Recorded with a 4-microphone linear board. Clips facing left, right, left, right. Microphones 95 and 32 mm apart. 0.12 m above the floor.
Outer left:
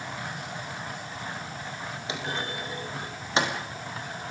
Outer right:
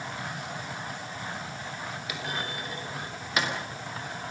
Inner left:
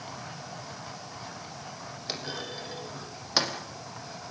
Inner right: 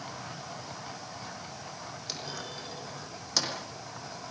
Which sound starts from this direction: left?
A clunk, at 2.1 s.